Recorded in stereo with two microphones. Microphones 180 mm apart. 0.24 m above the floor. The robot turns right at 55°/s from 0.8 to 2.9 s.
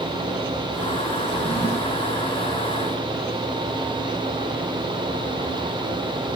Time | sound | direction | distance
1.2 | a drawer | 175° right | 8.5 m